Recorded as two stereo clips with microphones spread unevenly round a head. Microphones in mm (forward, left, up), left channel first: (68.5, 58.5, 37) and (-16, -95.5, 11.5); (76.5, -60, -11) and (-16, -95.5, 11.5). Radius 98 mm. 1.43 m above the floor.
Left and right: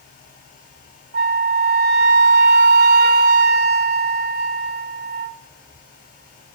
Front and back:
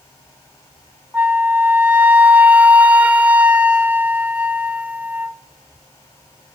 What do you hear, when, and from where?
1.1 s a flute: 85° right, 0.5 m